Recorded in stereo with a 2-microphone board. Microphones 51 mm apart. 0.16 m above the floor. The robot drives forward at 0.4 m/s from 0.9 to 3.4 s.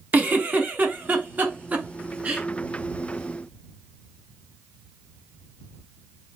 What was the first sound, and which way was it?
A giggle, 35° right (ahead or behind).